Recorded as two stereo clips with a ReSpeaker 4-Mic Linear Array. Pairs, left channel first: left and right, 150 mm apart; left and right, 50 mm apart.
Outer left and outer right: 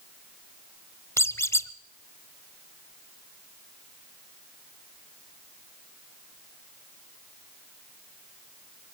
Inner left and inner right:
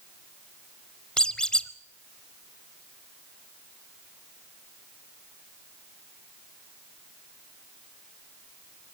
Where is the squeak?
20° left (ahead or behind), 0.8 m.